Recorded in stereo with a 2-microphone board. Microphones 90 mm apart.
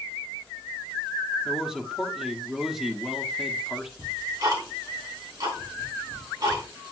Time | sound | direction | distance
1.4 | a man speaking | 5° right (ahead or behind) | 1.0 m
4.0 | ticking | 40° right (ahead or behind) | 4 m